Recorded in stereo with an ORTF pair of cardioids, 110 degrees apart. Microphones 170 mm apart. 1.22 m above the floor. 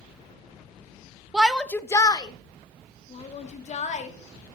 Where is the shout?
5° right, 0.8 m; by 4.1 s 45° left, 2.5 m.